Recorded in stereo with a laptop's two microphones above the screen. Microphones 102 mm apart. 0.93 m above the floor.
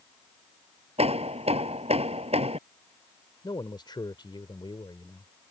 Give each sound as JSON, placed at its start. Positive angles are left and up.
{"t": 1.0, "sound": "hammering", "side_deg": -75}
{"t": 3.4, "sound": "a man speaking", "side_deg": 45}